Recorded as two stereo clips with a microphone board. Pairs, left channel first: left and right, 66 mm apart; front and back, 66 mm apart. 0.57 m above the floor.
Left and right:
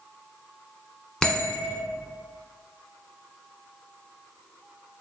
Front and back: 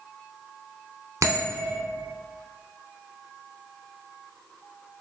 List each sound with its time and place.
1.2 s a bell: 165° left, 0.7 m